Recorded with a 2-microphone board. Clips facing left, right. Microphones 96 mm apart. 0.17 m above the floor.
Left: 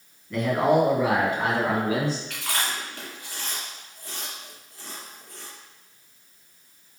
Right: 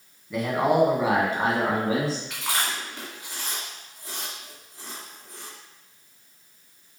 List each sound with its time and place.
0.3 s a man speaking: 5° right (ahead or behind), 1.4 m; by 2.2 s 35° right (ahead or behind), 1.8 m
2.3 s chewing: 20° right (ahead or behind), 2.5 m